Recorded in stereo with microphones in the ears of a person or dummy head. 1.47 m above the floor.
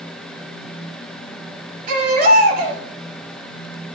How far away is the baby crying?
About 3 m.